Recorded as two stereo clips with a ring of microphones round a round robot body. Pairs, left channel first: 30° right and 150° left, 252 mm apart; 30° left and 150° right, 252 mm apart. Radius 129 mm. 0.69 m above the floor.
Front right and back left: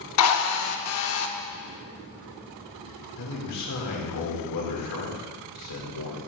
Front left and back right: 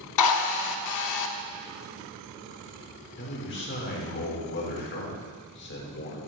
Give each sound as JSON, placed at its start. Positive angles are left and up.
{"t": 0.2, "sound": "a drill", "azimuth_deg": 5, "distance_m": 0.8}
{"t": 3.2, "sound": "a man speaking", "azimuth_deg": -15, "distance_m": 2.0}